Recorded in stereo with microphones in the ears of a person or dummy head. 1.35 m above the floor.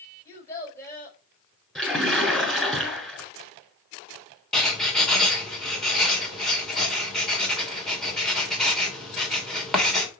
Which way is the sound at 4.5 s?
Centre (ahead or behind).